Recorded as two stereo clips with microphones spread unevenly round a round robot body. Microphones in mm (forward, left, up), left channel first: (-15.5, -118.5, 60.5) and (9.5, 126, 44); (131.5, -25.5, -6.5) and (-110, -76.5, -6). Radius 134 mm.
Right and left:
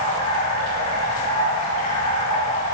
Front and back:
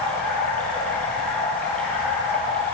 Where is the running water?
75° right, 8 m.